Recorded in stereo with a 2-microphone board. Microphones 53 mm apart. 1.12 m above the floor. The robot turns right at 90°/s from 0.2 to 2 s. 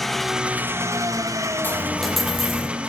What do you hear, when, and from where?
0.0 s an engine running: 175° left, 1.3 m; by 2.9 s 20° right, 1.3 m
1.6 s a dropped coin: 145° left, 6 m; by 2.7 s straight behind, 6 m